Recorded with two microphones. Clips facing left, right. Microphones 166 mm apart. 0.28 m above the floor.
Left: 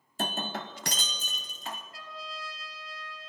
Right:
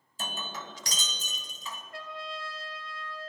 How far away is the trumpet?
About 1.4 m.